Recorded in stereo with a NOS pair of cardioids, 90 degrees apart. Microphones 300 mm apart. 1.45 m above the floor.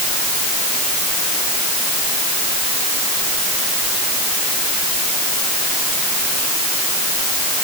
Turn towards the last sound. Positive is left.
No sound to turn to.